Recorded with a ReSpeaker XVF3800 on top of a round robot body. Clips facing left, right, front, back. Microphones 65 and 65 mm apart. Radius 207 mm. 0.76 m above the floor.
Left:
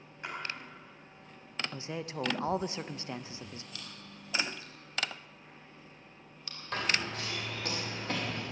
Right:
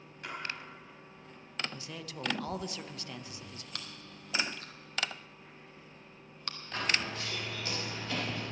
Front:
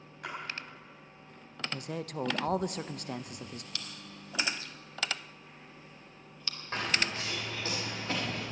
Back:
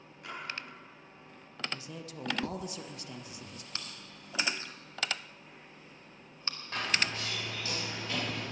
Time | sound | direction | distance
0.2 | a splash | 25° left | 4.5 m
1.7 | a man speaking | 30° left | 0.7 m
3.8 | chewing | 120° right | 1.6 m
6.7 | running footsteps | 65° left | 7 m